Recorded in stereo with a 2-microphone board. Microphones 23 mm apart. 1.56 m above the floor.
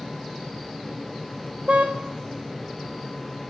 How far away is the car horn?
About 4 m.